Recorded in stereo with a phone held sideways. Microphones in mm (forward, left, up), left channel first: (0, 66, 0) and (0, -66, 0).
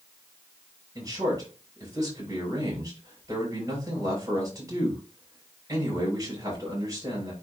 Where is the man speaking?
25° right (ahead or behind), 7 m.